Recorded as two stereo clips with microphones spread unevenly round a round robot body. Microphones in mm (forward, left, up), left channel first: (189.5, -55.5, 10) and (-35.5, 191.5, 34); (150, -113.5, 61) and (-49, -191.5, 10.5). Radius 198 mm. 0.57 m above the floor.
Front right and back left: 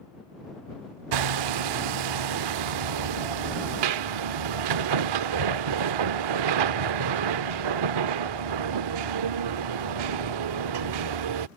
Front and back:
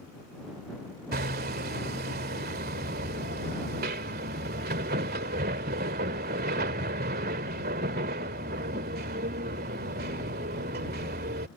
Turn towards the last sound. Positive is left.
turn(degrees=145)